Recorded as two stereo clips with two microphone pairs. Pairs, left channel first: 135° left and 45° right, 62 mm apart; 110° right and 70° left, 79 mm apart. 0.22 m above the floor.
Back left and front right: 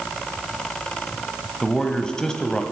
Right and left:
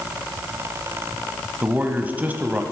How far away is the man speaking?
About 1.0 m.